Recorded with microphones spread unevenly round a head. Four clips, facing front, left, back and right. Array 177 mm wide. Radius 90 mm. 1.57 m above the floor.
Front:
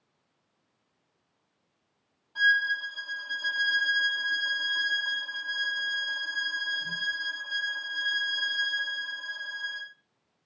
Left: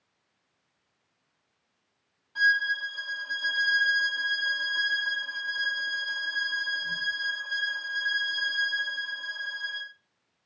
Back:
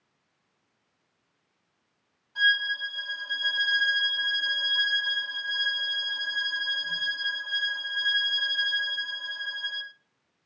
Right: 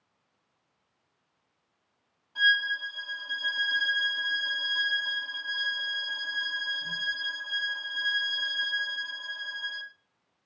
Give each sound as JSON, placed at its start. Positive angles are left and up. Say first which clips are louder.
{"t": 2.4, "sound": "a violin", "louder": "left 1 dB, front 1 dB", "azimuth_deg": -5, "distance_m": 1.8}